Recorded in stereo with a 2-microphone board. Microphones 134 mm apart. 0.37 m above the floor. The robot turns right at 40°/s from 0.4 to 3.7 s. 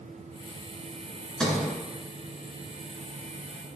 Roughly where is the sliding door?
Centre.